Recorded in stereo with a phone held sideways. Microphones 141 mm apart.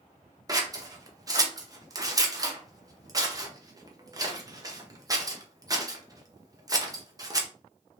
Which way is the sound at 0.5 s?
25° right (ahead or behind).